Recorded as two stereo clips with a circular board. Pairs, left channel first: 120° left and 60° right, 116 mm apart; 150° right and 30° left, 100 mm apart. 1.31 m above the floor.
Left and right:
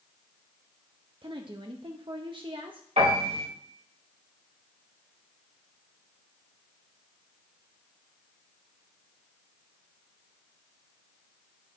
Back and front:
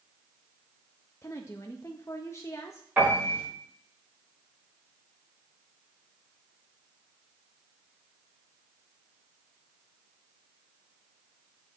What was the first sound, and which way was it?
A woman speaking, 95° right.